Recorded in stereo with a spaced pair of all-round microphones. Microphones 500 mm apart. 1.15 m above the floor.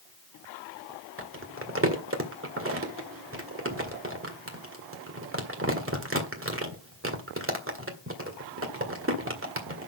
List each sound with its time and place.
1.2 s crumpling: 25° right (ahead or behind), 1.8 m